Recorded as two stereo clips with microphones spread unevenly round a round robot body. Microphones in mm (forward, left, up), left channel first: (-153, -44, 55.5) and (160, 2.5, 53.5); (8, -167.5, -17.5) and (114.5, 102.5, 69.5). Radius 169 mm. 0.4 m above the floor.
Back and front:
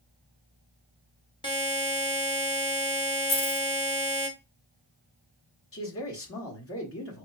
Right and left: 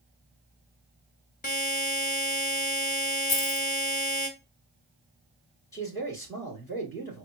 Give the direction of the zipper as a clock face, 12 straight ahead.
I don't hear a zipper.